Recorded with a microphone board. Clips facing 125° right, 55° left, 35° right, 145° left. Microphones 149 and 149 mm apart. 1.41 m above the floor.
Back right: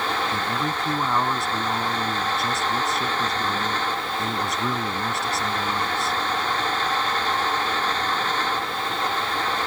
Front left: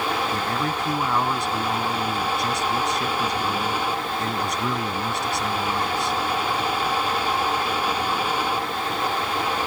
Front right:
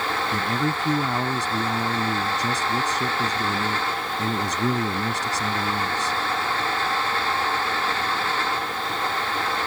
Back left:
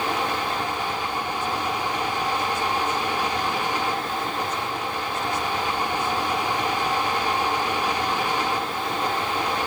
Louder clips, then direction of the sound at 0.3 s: Front left 1 dB, front right 2 dB; 35° right.